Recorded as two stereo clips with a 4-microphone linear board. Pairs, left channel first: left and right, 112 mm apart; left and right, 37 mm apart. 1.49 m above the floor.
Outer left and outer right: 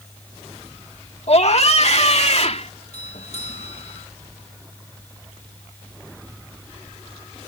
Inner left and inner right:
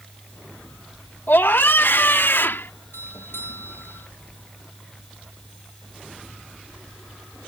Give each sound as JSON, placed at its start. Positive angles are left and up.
{"t": 1.3, "sound": "a scream", "side_deg": 65}
{"t": 2.9, "sound": "a doorbell", "side_deg": 85}